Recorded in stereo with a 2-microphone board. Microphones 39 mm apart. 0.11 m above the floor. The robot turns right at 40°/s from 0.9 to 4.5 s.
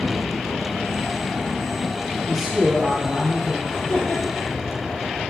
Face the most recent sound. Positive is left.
turn(degrees=125)